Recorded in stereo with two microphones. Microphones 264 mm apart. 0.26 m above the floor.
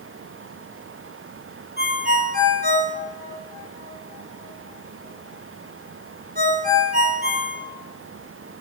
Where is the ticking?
No ticking in this recording.